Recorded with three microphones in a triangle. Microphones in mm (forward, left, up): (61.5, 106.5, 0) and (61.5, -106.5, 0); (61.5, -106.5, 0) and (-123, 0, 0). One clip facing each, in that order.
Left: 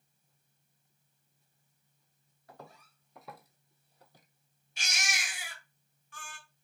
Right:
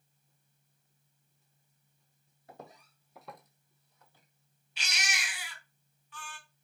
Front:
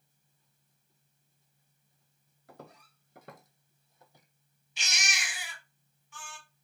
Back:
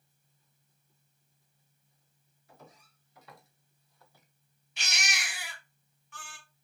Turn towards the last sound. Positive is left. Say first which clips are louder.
# even, back 1 dB
turn(degrees=130)